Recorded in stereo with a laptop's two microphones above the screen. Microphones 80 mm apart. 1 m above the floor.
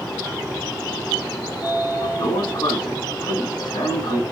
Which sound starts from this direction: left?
A sliding door, at 1.5 s.